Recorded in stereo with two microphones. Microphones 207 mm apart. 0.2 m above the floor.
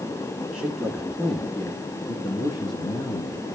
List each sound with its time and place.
0.5 s a man speaking: 5° right (ahead or behind), 2.5 m; by 3.4 s 25° left (ahead or behind), 3.5 m